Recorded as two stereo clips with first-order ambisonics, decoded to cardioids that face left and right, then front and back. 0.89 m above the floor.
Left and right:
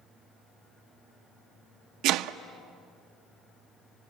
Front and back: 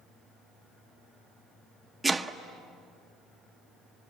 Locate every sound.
2.0 s chopping: 100° right, 0.6 m